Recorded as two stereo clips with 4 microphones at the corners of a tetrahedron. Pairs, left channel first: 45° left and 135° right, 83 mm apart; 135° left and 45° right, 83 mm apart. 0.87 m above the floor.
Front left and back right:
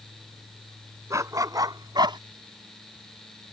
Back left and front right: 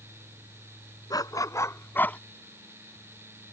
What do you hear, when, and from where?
1.1 s a dog barking: 175° left; by 2.2 s 150° right